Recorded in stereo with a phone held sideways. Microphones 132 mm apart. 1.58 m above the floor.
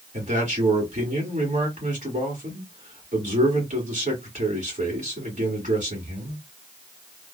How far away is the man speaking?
About 1.9 m.